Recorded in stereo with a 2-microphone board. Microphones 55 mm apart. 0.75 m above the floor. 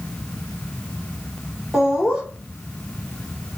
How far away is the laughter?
About 2.0 m.